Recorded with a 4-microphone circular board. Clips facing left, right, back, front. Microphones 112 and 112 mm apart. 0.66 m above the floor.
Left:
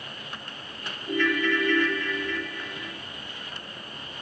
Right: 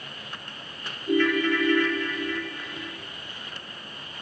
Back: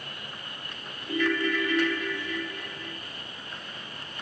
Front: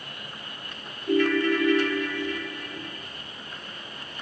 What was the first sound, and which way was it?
A ringtone, 20° right.